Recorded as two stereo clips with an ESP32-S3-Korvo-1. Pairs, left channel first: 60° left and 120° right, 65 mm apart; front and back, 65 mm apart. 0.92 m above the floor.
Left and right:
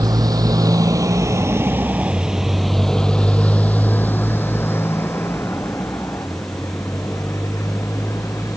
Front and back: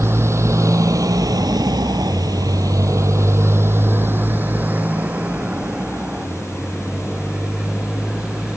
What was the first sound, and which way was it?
A motorcycle, 130° right.